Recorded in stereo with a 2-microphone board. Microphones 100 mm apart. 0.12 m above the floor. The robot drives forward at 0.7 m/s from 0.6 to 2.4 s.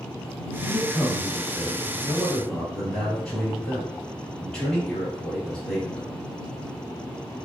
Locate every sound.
0.6 s a man speaking: 10° left (ahead or behind), 1.1 m; by 6.2 s 5° left (ahead or behind), 2.0 m